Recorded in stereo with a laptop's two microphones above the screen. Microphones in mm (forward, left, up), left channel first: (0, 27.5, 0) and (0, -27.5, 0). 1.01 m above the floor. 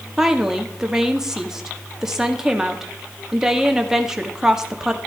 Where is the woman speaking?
10° right (ahead or behind), 2.0 m.